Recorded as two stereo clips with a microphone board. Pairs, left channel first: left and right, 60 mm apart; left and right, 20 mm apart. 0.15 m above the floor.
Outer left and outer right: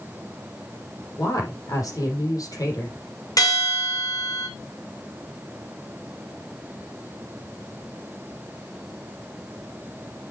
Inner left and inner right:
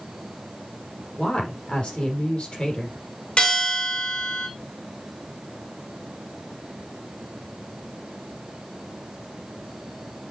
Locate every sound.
1.2 s a woman speaking: 70° left (ahead or behind), 5 m
3.4 s a bell: 70° left (ahead or behind), 4.5 m